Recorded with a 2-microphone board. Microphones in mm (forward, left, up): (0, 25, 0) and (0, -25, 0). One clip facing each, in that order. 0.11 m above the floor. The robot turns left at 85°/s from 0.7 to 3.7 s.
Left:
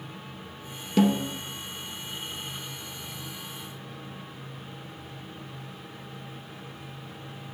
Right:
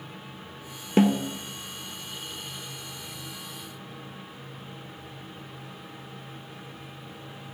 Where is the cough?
No cough in this recording.